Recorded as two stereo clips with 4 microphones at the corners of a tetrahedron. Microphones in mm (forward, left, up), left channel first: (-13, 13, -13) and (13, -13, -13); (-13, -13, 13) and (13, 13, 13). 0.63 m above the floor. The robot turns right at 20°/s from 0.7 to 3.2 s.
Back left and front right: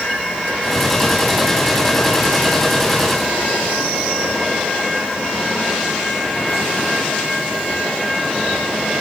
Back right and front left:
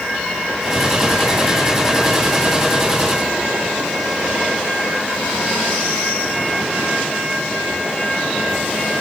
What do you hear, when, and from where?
Only background noise.